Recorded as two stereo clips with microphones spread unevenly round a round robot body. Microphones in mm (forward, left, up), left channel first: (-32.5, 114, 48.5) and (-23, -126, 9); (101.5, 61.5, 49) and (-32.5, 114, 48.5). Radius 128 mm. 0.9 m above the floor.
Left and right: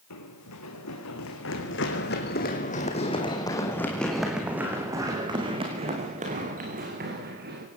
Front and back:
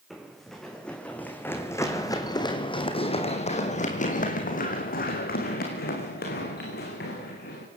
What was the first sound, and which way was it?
Running footsteps, 70° left.